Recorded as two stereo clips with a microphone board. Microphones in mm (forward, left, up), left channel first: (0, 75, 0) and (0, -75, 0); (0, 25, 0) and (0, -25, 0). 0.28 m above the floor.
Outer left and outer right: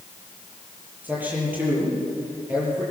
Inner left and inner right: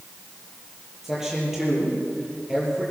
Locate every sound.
1.0 s a man speaking: 10° right (ahead or behind), 7.5 m